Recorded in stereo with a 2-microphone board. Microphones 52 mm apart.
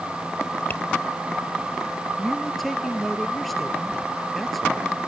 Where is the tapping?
40° left (ahead or behind).